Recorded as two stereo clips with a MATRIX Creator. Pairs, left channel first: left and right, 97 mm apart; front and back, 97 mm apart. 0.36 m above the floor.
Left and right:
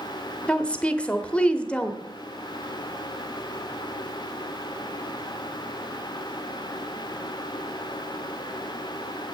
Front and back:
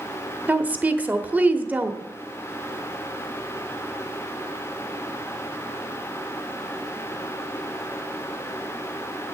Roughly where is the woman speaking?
Behind left.